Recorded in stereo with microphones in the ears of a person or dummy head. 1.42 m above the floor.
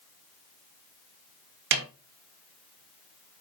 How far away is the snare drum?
About 1.4 m.